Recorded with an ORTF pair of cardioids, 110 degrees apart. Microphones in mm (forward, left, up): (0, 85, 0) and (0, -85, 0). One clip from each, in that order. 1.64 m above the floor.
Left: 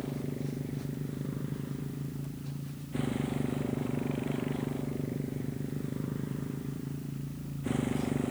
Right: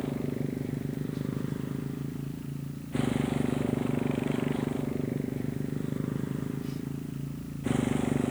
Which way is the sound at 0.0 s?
30° right.